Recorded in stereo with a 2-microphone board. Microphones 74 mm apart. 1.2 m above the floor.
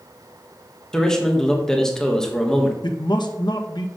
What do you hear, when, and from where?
0.9 s a man speaking: 5° left (ahead or behind), 1.4 m
2.8 s a man speaking: 75° left (ahead or behind), 1.1 m